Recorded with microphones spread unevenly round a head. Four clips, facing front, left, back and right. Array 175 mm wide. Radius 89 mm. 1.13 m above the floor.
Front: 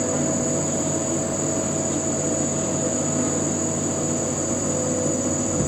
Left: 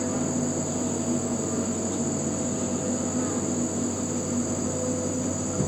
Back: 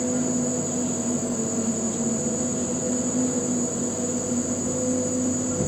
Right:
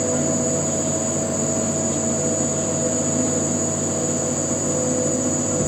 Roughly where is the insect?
Ahead.